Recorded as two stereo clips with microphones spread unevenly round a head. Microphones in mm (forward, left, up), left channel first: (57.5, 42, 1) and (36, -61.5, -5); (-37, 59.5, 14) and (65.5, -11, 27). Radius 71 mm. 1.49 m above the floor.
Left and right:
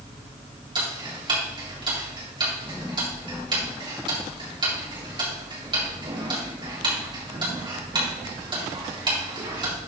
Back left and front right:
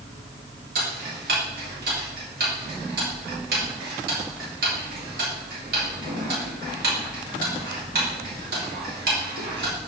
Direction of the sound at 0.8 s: 60° right.